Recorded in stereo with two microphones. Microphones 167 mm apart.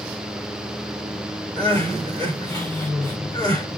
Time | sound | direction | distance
1.6 | crying | 15° left (ahead or behind) | 4 m